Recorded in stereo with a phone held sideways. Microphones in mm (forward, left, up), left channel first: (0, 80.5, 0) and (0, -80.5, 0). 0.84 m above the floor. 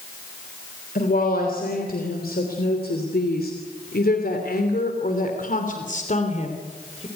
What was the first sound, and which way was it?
A woman speaking, 65° left (ahead or behind).